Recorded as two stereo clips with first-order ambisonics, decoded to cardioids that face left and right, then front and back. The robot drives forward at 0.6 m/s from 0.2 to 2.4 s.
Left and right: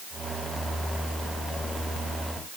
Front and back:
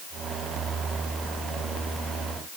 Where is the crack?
No crack in this recording.